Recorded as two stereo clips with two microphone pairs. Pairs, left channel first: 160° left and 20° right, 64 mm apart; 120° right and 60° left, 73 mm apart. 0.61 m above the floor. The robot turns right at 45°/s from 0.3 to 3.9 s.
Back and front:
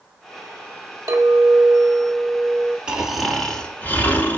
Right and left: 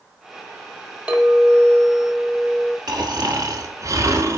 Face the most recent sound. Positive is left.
turn(degrees=100)